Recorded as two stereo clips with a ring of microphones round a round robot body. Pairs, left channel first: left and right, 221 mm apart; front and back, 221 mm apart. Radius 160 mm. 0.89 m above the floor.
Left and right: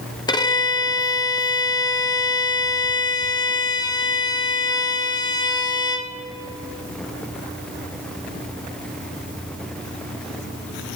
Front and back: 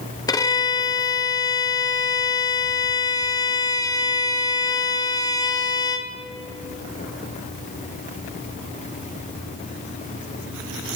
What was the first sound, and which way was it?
A violin, 50° left.